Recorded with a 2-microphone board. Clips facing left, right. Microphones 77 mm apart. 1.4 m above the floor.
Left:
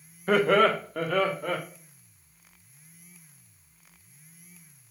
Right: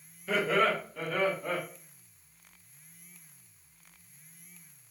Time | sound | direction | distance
0.3 | laughter | 55° left (ahead or behind) | 0.5 m